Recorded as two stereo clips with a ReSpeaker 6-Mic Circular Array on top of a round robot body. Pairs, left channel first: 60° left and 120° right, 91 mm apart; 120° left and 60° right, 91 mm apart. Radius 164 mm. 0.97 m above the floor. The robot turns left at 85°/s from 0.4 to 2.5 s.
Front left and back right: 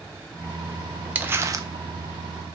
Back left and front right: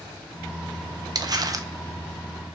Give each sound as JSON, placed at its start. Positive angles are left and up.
{"t": 1.1, "sound": "crumpling", "azimuth_deg": -55, "distance_m": 0.6}